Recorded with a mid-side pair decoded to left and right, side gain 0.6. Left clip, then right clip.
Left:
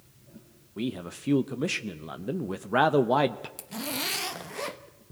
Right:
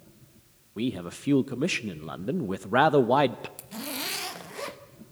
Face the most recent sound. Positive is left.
turn(degrees=10)